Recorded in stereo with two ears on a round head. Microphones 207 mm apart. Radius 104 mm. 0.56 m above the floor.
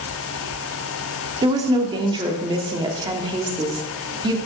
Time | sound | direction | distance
1.4 | a woman speaking | 20° right (ahead or behind) | 1.1 m